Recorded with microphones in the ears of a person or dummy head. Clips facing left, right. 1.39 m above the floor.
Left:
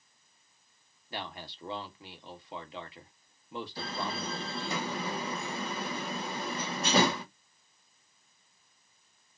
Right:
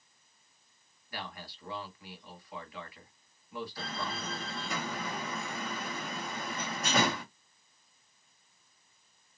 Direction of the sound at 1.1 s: 25° left (ahead or behind).